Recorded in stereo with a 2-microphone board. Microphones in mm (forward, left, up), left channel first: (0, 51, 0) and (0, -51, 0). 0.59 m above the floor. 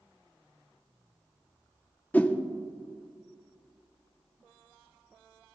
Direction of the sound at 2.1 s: 15° left (ahead or behind).